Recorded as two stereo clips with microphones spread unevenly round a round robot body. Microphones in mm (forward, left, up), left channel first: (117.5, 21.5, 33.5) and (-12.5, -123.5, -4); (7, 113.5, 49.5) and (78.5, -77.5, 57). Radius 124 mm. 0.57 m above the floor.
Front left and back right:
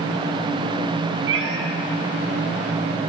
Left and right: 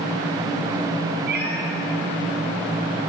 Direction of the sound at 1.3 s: 115° right.